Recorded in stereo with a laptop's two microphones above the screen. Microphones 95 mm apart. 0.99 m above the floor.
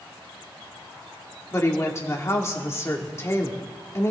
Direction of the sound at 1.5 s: 30° left (ahead or behind).